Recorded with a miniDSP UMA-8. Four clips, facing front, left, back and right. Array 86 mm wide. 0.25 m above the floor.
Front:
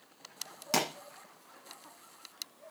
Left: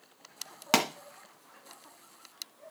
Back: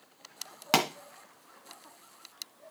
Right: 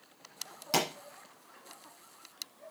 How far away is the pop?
About 1.8 m.